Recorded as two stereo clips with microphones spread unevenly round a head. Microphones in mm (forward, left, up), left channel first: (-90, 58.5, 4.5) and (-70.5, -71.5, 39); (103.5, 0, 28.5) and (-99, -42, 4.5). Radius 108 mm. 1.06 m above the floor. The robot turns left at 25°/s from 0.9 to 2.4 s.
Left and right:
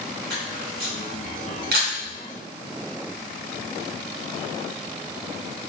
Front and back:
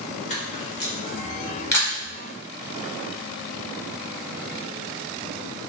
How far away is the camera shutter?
About 1.3 m.